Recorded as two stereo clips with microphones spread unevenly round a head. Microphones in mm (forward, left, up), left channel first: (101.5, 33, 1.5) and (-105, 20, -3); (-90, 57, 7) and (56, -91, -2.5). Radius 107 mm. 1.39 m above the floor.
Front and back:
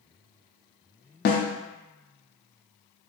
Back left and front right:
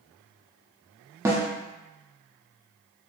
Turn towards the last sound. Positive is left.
turn(degrees=30)